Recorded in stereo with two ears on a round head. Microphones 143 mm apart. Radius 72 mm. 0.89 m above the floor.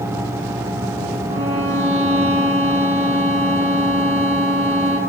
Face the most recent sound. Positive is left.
turn(degrees=-40)  # may be behind; listen again after turning